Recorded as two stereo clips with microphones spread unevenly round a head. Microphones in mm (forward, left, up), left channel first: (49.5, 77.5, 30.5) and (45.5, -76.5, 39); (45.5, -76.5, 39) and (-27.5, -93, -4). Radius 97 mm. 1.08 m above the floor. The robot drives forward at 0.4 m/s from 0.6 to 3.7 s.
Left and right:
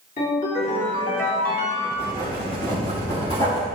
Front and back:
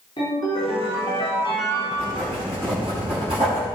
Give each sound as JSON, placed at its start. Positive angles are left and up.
{"t": 0.2, "sound": "a ringtone", "azimuth_deg": 55, "distance_m": 3.5}
{"t": 1.9, "sound": "writing", "azimuth_deg": 160, "distance_m": 3.5}